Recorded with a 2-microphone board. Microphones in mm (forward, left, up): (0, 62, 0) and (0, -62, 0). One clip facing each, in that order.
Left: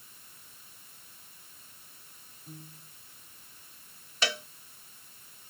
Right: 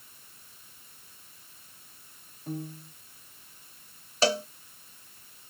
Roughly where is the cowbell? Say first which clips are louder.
Right 9 dB; right.